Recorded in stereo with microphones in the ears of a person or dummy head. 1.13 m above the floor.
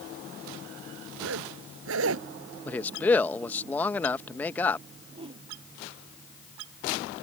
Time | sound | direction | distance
1.2 | a zipper | 75° right (ahead or behind) | ?
2.6 | a man speaking | 10° left (ahead or behind) | ?
5.1 | a whoosh | 25° right (ahead or behind) | ?